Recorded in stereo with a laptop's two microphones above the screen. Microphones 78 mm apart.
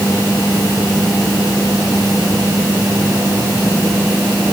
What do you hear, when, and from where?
Only background noise.